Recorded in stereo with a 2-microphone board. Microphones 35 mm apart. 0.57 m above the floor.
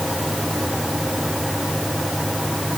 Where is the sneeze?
No sneeze in this recording.